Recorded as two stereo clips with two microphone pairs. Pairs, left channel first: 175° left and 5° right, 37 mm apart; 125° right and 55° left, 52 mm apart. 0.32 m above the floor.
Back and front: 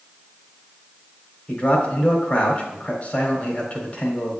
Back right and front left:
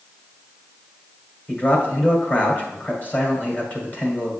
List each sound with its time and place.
1.5 s a man speaking: 155° right, 1.7 m